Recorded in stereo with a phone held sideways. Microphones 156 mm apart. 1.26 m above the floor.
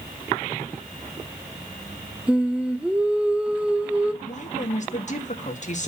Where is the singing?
5° right (ahead or behind), 1.1 m.